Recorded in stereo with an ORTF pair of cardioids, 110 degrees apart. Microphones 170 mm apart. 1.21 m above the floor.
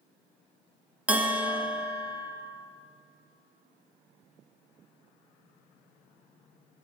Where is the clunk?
No clunk in this recording.